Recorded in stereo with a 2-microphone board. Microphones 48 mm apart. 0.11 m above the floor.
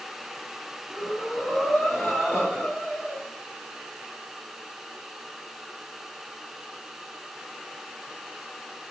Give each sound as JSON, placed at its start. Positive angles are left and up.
{"t": 0.9, "sound": "breathing", "side_deg": 25, "distance_m": 2.0}